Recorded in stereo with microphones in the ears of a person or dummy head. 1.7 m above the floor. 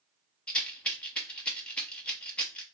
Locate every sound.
0.5 s a rattle: 10° left (ahead or behind), 0.7 m